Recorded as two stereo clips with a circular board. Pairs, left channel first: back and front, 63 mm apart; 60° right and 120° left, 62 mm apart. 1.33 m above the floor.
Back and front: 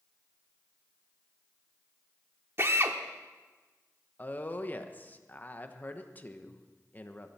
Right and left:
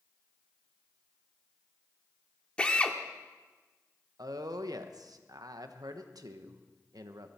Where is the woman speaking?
120° left, 1.1 m.